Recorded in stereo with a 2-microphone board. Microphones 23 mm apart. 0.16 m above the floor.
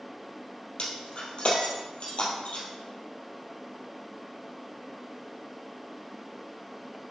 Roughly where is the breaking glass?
Left.